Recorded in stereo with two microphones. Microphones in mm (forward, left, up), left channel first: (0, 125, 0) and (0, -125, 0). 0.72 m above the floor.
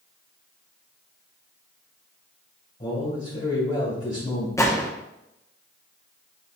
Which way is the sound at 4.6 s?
10° left (ahead or behind).